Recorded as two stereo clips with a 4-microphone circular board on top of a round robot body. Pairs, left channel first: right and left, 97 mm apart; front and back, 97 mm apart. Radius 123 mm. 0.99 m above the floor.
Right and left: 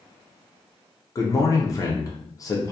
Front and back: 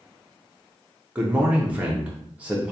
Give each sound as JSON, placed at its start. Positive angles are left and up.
{"t": 1.1, "sound": "a man speaking", "azimuth_deg": -115, "distance_m": 0.6}